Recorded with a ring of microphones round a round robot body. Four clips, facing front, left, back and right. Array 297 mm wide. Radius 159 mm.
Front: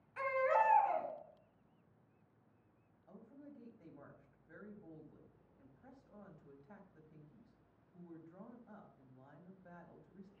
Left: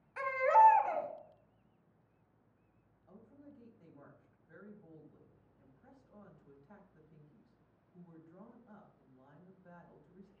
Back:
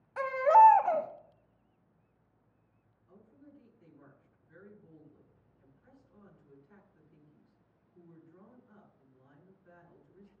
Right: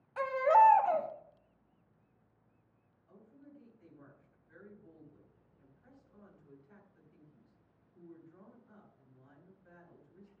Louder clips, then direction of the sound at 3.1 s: Even, front 1 dB; 25° left.